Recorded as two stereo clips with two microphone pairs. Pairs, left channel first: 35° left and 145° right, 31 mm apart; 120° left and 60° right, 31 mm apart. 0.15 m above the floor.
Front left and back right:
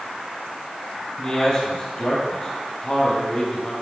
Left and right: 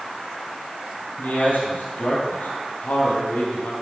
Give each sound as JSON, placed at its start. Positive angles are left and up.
{"t": 1.2, "sound": "a man speaking", "azimuth_deg": 110, "distance_m": 3.5}